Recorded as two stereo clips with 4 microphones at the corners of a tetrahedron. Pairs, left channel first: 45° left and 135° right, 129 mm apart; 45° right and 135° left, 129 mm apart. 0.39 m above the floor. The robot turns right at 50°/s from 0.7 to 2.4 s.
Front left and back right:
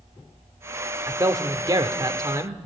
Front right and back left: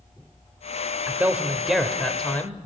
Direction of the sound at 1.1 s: 175° right.